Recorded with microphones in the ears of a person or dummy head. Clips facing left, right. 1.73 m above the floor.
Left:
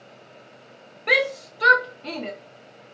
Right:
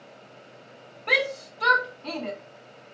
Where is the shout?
30° left (ahead or behind), 0.6 m.